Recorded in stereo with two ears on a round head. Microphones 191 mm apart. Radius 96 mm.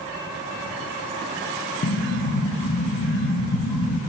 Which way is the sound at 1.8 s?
50° left (ahead or behind).